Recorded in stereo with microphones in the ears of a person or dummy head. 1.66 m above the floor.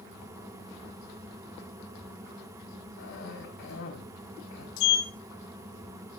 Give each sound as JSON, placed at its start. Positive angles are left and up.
{"t": 3.0, "sound": "a cough", "side_deg": 65, "distance_m": 5.0}
{"t": 4.8, "sound": "a sliding door", "side_deg": 75, "distance_m": 3.0}